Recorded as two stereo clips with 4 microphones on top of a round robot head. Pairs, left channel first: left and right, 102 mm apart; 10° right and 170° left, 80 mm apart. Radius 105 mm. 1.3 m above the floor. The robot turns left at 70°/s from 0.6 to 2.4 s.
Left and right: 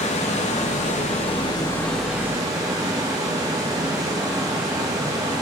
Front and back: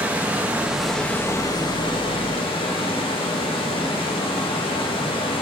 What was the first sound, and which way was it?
Running water, 100° left.